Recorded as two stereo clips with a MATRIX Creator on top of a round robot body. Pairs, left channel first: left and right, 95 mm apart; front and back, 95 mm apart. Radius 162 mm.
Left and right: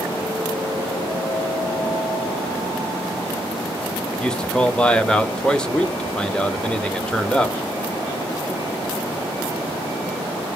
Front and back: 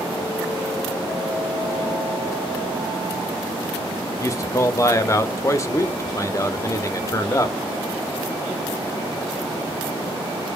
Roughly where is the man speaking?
Ahead.